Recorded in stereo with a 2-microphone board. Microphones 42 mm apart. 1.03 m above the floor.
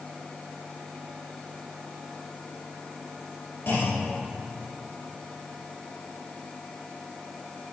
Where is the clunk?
65° left (ahead or behind), 3 m.